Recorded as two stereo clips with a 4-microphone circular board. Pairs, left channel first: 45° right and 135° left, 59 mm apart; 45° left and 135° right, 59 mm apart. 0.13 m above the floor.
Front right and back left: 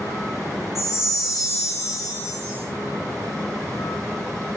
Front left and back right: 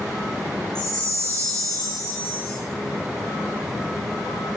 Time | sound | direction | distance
0.8 | a chime | 120° left | 3.5 m